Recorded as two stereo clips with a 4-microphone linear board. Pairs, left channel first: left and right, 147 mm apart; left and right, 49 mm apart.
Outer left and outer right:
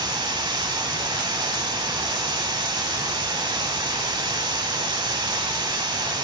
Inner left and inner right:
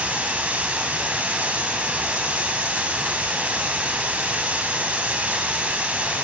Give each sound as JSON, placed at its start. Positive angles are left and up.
{"t": 0.0, "sound": "running water", "side_deg": -35, "distance_m": 1.0}